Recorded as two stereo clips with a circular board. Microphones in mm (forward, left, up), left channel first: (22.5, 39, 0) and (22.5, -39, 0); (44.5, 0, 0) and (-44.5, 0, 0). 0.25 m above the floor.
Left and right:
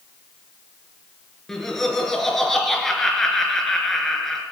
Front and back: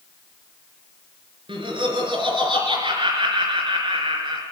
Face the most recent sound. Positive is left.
turn(degrees=175)